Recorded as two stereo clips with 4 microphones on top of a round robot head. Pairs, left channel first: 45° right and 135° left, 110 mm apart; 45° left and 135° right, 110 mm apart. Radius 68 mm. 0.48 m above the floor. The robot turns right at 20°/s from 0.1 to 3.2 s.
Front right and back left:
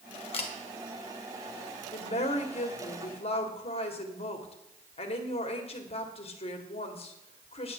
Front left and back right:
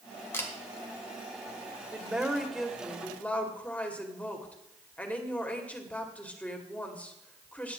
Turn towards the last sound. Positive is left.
turn(degrees=-30)